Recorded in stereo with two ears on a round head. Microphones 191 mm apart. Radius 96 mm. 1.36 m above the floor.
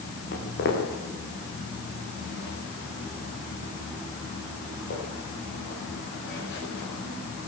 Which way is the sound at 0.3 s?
50° left (ahead or behind).